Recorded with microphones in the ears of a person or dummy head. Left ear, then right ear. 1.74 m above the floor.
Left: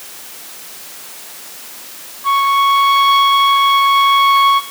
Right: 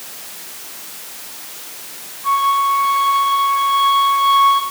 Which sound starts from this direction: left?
A flute, at 2.2 s.